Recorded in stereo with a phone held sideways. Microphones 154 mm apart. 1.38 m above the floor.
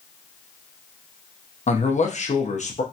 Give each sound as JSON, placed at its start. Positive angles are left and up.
{"t": 1.7, "sound": "a man speaking", "side_deg": 50, "distance_m": 0.8}